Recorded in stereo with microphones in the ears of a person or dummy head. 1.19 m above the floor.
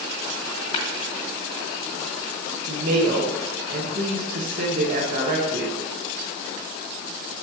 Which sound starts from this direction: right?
A woman speaking, at 2.6 s.